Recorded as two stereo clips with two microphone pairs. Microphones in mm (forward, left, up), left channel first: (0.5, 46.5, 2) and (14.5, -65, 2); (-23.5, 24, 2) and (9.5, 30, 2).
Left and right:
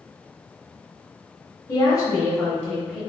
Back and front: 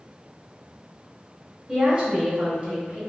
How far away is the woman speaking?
About 1.1 m.